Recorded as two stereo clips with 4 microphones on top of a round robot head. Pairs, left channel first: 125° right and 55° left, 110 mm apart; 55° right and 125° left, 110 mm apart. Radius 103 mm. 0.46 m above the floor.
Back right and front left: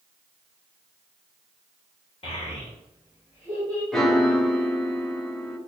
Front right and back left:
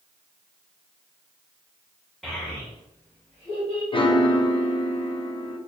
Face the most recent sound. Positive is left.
turn(degrees=-40)